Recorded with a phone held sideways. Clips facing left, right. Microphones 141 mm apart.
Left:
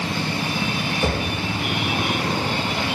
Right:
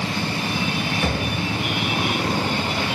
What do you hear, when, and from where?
1.0 s knocking: 20° left (ahead or behind), 4.5 m